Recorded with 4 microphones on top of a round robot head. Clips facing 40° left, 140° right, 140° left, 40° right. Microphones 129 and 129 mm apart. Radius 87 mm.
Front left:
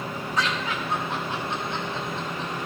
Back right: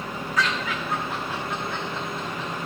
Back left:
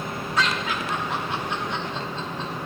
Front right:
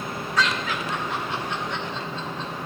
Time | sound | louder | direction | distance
0.4 | laughter | back right 1 dB, even | 85° left | 1.1 m